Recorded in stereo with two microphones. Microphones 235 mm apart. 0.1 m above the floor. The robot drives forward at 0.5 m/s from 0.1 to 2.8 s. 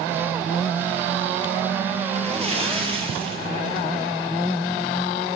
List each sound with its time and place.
2.1 s a splash: 30° right (ahead or behind), 1.4 m; by 3.9 s 25° right (ahead or behind), 1.6 m